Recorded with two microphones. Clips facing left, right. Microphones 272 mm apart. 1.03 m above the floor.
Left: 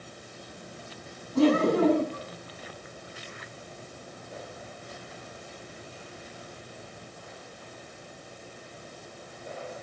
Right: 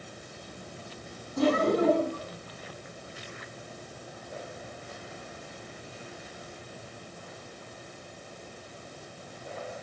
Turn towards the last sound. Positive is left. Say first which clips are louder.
# left 3 dB
turn(degrees=90)